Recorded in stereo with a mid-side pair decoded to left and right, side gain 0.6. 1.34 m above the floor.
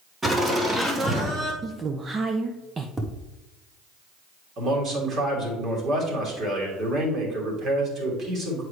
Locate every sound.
0.2 s laughter: 25° right, 2 m; by 1.5 s 50° right, 1.9 m
1.6 s a woman speaking: 30° right, 0.6 m
3.0 s tapping: 10° right, 1.2 m
4.6 s a man speaking: 45° right, 3 m